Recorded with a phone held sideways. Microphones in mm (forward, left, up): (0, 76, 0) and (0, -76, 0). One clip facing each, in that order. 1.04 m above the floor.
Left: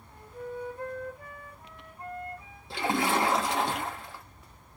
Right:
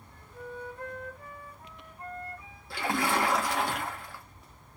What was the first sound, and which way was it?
A flute, 25° left (ahead or behind).